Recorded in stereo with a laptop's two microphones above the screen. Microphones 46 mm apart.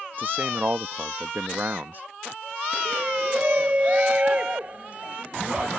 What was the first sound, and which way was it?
A man speaking, 45° right (ahead or behind).